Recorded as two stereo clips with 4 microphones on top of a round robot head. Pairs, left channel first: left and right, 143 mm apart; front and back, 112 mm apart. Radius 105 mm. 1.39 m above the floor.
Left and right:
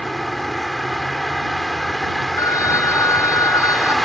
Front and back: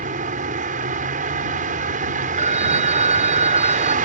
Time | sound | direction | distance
0.0 | a vehicle | straight behind | ?
2.4 | a phone ringing | 160° left | ?